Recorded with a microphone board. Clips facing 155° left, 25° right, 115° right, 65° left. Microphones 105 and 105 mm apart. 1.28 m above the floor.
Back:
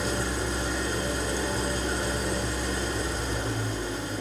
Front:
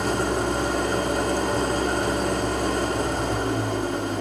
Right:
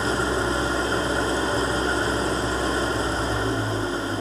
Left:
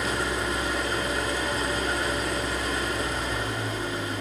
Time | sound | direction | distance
0.0 | an engine running | 55° right | 2.5 m